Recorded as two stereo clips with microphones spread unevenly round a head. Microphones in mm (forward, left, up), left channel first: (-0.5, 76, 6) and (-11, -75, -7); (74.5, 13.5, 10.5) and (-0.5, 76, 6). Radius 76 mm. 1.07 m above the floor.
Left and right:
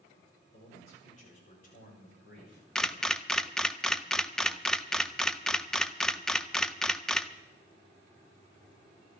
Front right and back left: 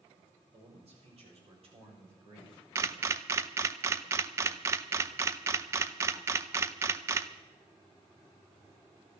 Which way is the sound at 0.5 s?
135° left.